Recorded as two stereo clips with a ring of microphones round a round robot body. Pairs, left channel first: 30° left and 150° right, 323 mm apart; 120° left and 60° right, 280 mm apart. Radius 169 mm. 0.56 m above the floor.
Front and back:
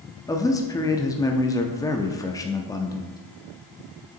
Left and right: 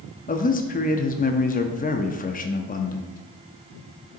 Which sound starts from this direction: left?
A man speaking, at 0.3 s.